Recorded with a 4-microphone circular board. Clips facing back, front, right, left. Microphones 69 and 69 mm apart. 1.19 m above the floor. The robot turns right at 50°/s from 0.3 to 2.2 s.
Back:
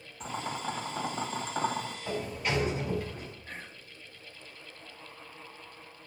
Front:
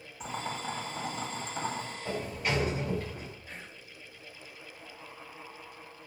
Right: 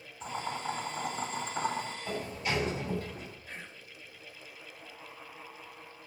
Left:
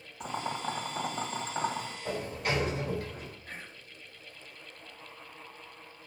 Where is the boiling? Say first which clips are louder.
Back 1 dB, left 1 dB; 85° left, 1.6 m; by 1.9 s 170° left, 1.6 m.